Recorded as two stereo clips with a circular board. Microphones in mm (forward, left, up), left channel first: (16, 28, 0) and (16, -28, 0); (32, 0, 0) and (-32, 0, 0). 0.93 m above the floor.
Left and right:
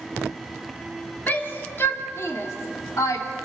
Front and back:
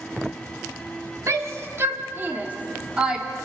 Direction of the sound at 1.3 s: 140° left.